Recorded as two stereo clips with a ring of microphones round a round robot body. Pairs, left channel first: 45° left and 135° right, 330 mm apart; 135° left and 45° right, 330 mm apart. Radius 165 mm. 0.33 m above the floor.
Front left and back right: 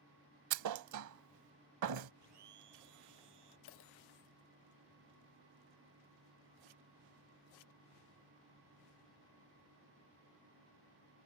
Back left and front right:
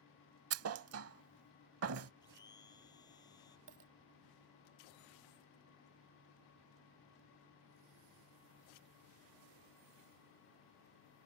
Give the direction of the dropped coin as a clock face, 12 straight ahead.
12 o'clock.